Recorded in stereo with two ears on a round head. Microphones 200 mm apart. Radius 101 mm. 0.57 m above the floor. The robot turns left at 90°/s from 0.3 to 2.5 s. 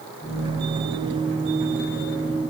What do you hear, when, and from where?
Only background noise.